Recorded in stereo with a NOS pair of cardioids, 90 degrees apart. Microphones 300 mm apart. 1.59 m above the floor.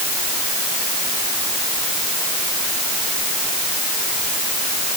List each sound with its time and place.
Only background noise.